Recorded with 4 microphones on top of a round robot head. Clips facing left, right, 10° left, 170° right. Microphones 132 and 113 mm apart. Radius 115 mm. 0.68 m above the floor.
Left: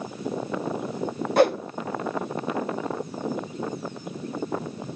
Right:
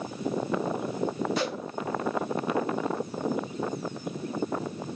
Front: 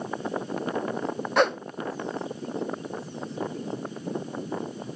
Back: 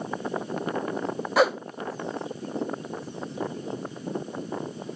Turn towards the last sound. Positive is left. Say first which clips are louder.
# left 11 dB, back 1 dB
turn(degrees=105)